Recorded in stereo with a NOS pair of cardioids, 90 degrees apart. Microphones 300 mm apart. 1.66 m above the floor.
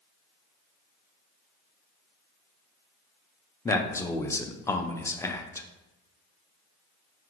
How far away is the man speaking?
About 0.5 m.